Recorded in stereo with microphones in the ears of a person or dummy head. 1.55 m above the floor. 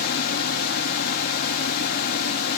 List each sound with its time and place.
0.0 s a fan: 55° left (ahead or behind)